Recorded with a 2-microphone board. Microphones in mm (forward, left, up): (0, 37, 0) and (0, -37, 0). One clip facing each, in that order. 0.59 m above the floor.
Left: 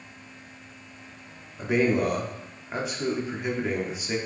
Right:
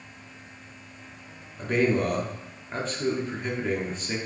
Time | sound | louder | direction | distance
1.6 | a man speaking | left 1 dB | 10° left (ahead or behind) | 0.8 m